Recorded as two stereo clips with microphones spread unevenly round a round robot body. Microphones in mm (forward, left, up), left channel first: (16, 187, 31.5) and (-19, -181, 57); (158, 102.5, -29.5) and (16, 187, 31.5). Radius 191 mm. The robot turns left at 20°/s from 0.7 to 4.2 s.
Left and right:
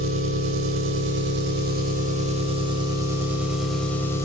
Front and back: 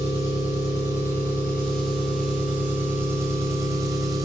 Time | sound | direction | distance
0.0 | an engine running | 120° right | 0.7 m